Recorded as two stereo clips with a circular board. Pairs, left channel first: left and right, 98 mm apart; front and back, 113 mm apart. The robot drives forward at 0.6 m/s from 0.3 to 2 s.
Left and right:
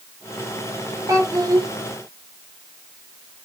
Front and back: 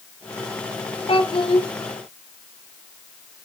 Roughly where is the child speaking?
Ahead right.